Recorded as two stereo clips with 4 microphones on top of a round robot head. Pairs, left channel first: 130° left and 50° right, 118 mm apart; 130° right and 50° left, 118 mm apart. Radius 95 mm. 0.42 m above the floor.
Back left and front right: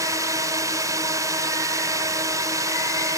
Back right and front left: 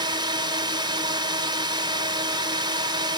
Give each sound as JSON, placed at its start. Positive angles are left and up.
{"t": 0.0, "sound": "a drone", "azimuth_deg": 10}